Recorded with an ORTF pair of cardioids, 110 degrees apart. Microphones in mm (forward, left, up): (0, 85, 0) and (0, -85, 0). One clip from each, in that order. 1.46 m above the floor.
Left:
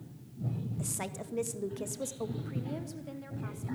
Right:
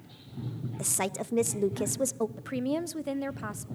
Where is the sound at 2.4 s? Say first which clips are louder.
Right 9 dB; 55° right, 0.7 m.